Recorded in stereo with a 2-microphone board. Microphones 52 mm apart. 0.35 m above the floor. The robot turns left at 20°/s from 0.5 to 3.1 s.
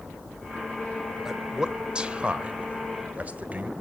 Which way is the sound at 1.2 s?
10° right (ahead or behind).